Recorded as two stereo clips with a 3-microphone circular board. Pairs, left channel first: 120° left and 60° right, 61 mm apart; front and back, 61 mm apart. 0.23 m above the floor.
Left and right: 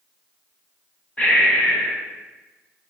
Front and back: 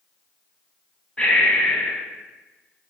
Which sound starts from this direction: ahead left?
Breathing, at 1.2 s.